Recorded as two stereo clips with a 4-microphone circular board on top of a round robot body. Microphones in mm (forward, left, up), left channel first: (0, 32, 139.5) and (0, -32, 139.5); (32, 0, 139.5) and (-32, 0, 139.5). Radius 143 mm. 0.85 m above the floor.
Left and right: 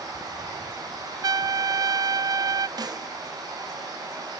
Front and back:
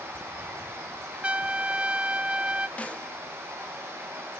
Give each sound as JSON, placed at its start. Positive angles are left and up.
{"t": 0.0, "sound": "running water", "azimuth_deg": -125, "distance_m": 3.5}
{"t": 1.2, "sound": "a trumpet", "azimuth_deg": -110, "distance_m": 0.5}
{"t": 2.8, "sound": "a snare drum", "azimuth_deg": -70, "distance_m": 1.1}